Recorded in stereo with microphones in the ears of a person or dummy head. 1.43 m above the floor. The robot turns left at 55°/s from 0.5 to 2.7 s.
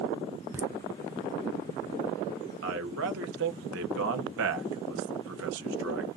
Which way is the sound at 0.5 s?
10° right (ahead or behind).